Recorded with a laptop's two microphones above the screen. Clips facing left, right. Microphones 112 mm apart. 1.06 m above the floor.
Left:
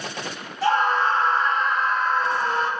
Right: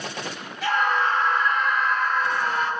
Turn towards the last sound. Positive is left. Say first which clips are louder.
# left 3 dB
turn(degrees=35)  # may be behind; listen again after turning